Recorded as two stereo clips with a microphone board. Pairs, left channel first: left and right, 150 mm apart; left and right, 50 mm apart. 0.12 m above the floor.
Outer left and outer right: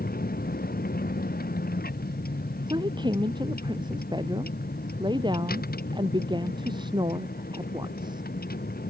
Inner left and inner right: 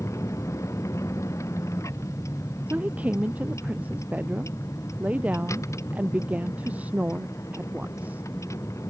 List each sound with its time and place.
0.0 s a vehicle: 80° left; by 8.9 s 85° left
2.7 s a woman speaking: 30° right (ahead or behind)